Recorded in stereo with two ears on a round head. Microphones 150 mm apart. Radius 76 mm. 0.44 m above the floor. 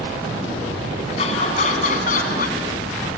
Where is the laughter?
35° left (ahead or behind), 4 m; by 3.2 s 60° left (ahead or behind), 4 m.